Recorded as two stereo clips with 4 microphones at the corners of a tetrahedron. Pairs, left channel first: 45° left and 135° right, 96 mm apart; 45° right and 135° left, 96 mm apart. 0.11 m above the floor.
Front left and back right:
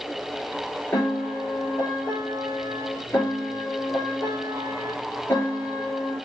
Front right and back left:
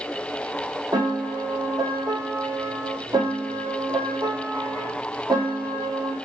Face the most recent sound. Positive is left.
turn(degrees=105)